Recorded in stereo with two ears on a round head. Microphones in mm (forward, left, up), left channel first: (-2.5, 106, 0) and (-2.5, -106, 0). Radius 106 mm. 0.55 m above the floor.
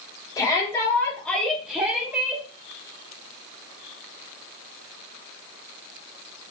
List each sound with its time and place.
0.4 s a shout: 20° left (ahead or behind), 1.3 m; by 2.4 s 15° right (ahead or behind), 1.3 m